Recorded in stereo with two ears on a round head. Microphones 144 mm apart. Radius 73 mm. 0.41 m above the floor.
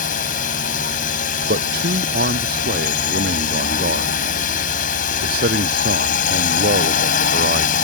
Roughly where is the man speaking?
Right.